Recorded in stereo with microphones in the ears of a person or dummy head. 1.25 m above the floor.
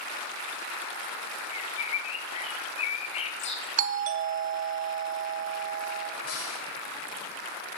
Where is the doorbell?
45° right (ahead or behind), 1.5 m.